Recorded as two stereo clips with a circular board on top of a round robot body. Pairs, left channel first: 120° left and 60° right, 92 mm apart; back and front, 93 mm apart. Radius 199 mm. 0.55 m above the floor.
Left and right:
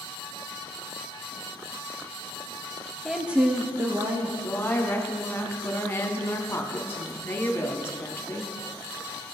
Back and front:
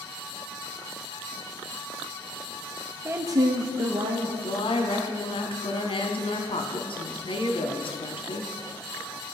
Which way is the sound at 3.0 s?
35° left.